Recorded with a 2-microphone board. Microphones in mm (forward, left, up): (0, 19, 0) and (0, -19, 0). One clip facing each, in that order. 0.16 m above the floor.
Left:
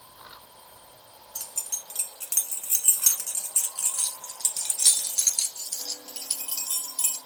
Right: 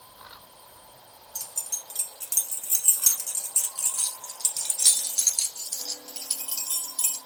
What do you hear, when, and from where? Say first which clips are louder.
1.4 s keys jangling: even; 40° left (ahead or behind), 1.2 m; by 7.2 s 10° left (ahead or behind), 2.5 m